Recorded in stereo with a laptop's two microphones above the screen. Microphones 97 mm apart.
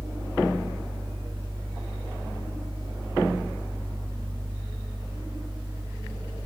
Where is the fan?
40° right (ahead or behind), 1.5 m.